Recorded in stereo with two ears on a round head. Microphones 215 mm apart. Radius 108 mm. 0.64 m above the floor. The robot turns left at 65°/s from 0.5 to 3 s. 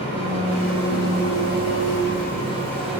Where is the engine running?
155° left, 3.5 m; by 3.0 s 10° right, 3.5 m.